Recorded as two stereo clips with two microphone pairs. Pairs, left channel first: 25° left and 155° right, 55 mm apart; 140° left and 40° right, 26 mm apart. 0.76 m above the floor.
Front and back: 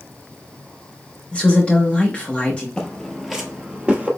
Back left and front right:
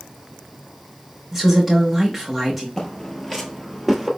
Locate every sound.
1.3 s a woman speaking: 45° left, 1.0 m
2.8 s footsteps: 85° left, 0.8 m; by 4.1 s 125° right, 0.8 m